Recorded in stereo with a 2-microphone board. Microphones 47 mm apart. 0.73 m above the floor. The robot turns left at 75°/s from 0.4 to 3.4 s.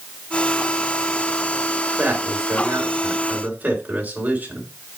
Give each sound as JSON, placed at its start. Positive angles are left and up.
{"t": 2.0, "sound": "a man speaking", "side_deg": -35, "distance_m": 3.0}